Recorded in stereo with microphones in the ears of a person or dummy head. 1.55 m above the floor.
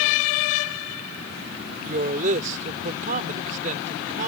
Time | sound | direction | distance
1.9 | a woman speaking | 40° right (ahead or behind) | ?